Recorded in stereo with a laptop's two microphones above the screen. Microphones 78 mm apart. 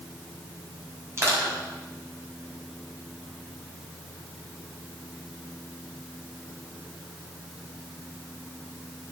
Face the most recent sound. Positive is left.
turn(degrees=-35)  # may be behind; listen again after turning